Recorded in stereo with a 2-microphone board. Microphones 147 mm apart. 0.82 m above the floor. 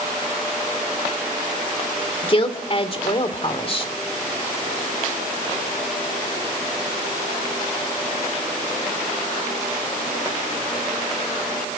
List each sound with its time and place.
2.2 s a woman speaking: 40° left (ahead or behind), 2 m